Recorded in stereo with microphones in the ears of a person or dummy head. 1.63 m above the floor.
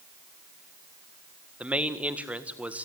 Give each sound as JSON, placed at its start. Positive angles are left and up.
{"t": 1.6, "sound": "a man speaking", "side_deg": -5, "distance_m": 1.6}